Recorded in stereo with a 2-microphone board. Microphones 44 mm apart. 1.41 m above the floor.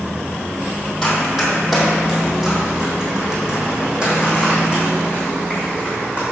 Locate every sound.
1.0 s running footsteps: 5° left (ahead or behind), 2.5 m; by 6.2 s 30° right (ahead or behind), 4.5 m